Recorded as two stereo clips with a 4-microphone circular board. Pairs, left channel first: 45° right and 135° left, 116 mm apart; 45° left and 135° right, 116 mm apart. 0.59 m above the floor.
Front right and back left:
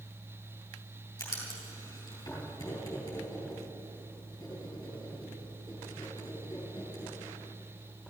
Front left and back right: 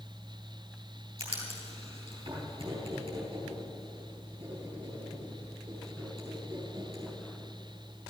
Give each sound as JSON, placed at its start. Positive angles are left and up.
{"t": 1.2, "sound": "writing", "azimuth_deg": -100, "distance_m": 4.5}